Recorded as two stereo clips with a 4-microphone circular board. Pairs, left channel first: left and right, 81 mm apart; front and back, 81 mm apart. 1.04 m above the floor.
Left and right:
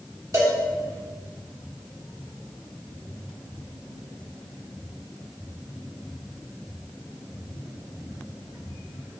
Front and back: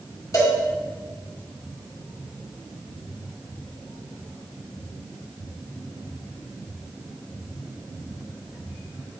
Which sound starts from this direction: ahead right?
A cowbell, at 0.3 s.